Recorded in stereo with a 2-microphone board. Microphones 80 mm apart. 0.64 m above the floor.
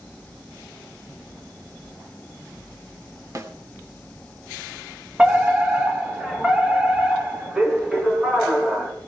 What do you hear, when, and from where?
3.4 s a snare drum: 40° right (ahead or behind), 1.8 m
5.2 s a fire alarm: 15° right (ahead or behind), 2 m